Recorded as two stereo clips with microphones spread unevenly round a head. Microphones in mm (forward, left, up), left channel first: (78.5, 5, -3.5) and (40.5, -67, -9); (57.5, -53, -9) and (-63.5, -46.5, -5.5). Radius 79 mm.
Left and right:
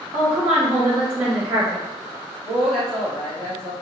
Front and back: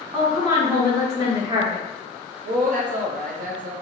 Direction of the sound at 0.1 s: 135° right.